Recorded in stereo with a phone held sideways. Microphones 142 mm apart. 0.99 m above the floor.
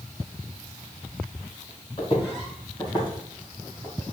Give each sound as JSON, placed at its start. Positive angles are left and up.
{"t": 2.0, "sound": "footsteps", "side_deg": 40, "distance_m": 2.0}